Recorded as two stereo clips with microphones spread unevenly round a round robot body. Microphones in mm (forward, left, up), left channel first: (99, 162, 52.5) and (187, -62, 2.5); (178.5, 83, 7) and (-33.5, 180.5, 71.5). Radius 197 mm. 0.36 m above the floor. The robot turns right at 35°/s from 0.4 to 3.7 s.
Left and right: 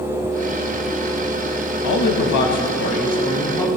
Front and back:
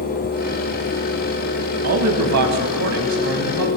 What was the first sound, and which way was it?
A man speaking, 135° left.